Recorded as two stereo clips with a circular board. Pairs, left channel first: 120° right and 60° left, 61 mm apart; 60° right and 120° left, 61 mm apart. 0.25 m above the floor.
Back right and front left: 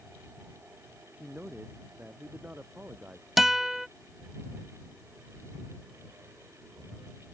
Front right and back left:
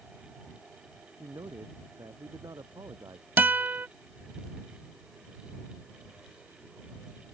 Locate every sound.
1.1 s a man speaking: 130° left; by 3.3 s 120° left
3.4 s a guitar: 140° left